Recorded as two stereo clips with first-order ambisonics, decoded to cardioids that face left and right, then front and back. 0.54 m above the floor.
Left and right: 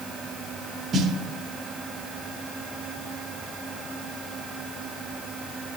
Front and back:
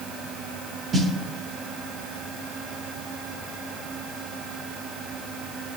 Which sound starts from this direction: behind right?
A snare drum, at 0.9 s.